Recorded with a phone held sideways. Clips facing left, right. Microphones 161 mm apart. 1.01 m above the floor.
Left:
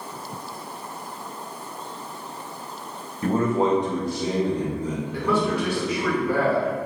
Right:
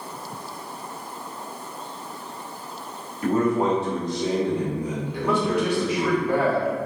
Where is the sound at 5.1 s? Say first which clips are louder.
Right 1 dB; 20° right (ahead or behind), 1.4 m.